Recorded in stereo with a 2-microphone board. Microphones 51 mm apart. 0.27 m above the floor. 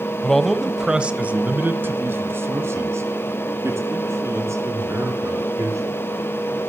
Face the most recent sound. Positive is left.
turn(degrees=-75)  # may be behind; listen again after turning